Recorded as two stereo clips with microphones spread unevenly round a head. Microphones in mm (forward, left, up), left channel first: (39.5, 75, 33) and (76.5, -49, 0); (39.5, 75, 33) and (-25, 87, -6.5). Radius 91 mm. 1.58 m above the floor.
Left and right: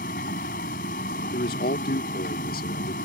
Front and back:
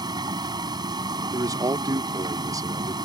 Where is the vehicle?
150° left.